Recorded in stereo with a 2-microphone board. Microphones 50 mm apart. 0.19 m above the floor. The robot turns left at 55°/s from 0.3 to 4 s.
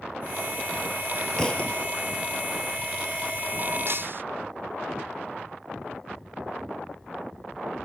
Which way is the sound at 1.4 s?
15° left (ahead or behind).